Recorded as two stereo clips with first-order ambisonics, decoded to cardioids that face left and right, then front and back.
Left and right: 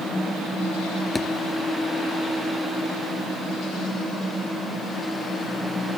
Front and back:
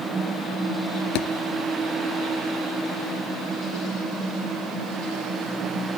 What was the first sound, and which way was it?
A thud, 10° left.